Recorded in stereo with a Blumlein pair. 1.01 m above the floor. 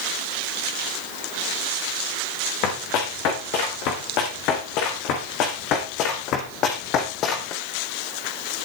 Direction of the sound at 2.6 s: 40° left.